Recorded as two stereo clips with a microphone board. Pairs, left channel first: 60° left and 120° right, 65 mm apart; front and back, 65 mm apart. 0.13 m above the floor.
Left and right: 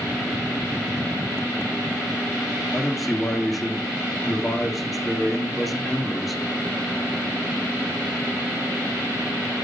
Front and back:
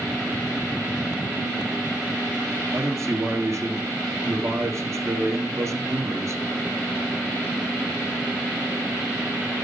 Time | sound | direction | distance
2.7 | a man speaking | 150° left | 1.9 m